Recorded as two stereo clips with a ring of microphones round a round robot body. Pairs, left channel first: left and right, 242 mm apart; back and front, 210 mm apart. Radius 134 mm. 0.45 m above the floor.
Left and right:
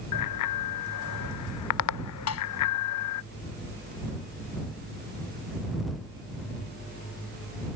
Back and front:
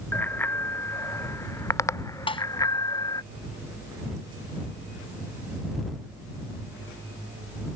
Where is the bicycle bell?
100° left; by 3.2 s 105° left.